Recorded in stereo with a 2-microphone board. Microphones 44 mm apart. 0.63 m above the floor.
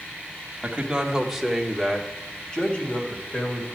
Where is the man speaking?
25° right (ahead or behind), 1.3 m; by 3.8 s 35° left (ahead or behind), 2.5 m.